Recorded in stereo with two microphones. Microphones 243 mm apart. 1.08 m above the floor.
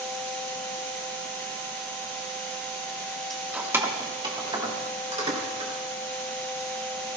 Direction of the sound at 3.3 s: Centre (ahead or behind).